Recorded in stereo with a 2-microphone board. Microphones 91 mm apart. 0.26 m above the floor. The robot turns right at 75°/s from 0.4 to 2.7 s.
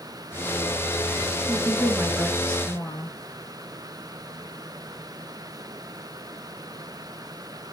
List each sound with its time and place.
1.5 s a woman speaking: 60° right, 3.5 m; by 3.2 s 35° left, 3.5 m